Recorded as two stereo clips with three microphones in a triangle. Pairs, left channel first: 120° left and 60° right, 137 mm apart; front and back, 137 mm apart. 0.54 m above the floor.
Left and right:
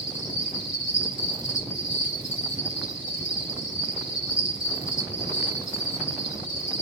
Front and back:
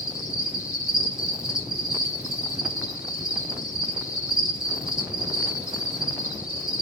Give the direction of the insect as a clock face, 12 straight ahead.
9 o'clock.